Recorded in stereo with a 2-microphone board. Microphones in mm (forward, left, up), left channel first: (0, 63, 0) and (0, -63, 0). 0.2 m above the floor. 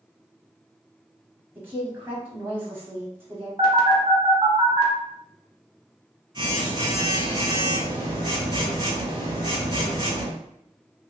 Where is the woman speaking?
20° right (ahead or behind), 1.0 m.